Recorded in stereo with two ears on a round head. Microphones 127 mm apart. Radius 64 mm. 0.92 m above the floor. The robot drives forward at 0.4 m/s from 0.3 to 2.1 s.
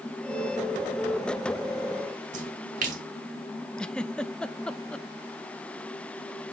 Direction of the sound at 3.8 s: 5° left (ahead or behind).